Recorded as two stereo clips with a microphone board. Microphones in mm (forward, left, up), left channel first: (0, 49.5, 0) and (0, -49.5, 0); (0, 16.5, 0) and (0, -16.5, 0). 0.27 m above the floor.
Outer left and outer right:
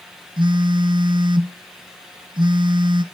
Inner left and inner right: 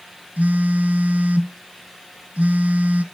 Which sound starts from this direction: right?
A phone buzzing, at 0.4 s.